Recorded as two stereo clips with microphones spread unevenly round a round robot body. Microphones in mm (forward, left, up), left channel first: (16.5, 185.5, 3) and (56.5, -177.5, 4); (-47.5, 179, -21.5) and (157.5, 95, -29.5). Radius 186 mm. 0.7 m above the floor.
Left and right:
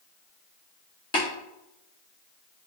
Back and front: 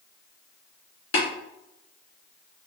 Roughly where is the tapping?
Behind.